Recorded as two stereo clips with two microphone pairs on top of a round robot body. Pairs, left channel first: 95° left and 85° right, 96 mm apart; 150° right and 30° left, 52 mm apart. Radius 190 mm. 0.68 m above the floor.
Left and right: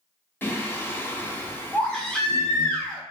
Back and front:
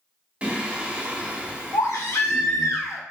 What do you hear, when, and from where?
0.4 s singing: 65° left, 1.0 m
1.7 s a baby crying: 175° left, 0.5 m